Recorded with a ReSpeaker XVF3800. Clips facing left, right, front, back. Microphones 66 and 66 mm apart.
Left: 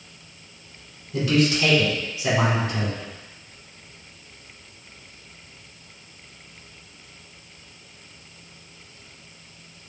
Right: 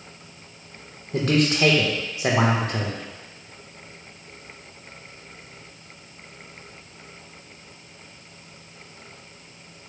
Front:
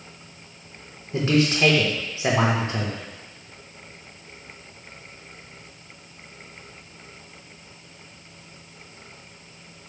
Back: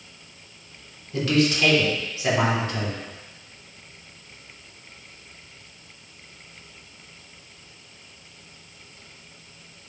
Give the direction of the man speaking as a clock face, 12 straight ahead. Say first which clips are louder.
Even, front 1 dB; 2 o'clock.